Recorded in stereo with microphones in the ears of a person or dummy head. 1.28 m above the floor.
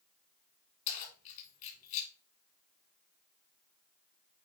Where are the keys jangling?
40° left (ahead or behind), 2 m.